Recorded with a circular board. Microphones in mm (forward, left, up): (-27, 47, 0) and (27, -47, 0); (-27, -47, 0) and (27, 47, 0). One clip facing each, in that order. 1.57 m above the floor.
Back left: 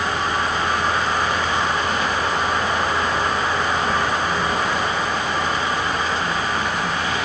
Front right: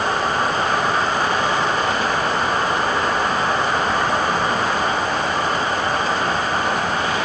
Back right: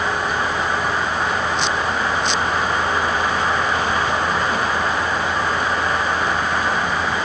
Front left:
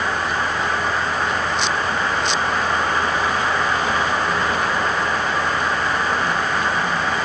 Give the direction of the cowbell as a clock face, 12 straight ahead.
I don't hear a cowbell.